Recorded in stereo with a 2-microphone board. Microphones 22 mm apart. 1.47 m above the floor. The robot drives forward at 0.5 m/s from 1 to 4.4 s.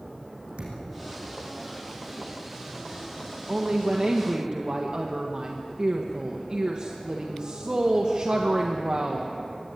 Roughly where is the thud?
Right.